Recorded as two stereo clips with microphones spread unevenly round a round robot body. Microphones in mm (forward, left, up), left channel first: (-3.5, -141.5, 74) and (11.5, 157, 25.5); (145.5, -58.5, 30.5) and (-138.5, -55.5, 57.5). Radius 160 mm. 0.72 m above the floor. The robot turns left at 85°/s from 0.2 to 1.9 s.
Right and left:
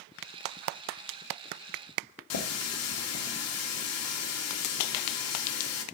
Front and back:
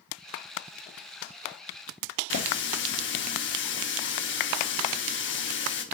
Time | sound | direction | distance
2.3 | a running tap | 50° right | 1.1 m